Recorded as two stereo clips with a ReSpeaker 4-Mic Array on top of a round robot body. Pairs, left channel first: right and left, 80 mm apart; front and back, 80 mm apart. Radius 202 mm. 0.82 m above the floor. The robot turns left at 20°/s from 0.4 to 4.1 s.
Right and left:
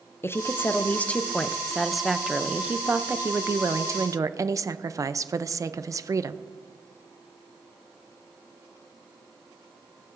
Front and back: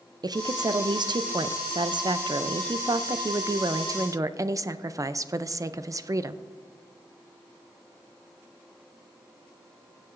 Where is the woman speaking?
150° right, 0.5 m; by 6.4 s 135° left, 0.5 m.